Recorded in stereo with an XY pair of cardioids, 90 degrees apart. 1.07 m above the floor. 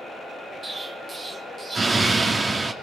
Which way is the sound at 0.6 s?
40° right.